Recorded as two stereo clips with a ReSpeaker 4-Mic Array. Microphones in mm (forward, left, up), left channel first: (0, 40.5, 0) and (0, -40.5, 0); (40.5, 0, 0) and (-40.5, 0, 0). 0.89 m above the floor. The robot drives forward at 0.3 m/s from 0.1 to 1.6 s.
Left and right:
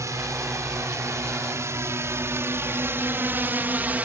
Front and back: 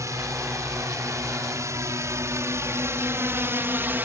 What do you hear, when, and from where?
0.0 s a drone: 135° right; by 4.0 s 140° right